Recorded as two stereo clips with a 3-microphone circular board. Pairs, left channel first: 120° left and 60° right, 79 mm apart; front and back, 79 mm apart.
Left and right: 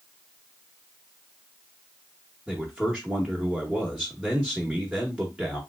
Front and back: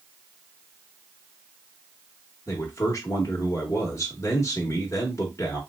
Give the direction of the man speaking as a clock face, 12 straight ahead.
12 o'clock.